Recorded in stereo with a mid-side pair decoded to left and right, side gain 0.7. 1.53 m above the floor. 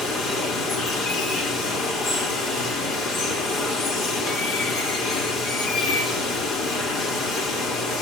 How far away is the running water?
About 3.5 m.